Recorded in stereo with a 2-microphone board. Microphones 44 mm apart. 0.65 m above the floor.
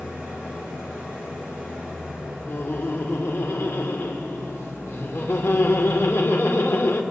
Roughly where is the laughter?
Left.